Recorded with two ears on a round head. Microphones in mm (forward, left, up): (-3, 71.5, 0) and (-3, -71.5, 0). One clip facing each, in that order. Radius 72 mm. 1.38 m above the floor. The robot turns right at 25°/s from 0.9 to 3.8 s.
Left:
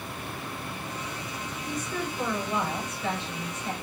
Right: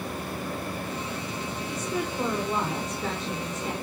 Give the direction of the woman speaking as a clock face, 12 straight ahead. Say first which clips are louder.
Right 1 dB; 6 o'clock.